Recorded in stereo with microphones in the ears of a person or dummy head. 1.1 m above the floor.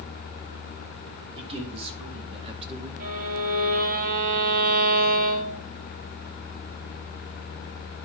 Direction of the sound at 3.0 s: 35° right (ahead or behind).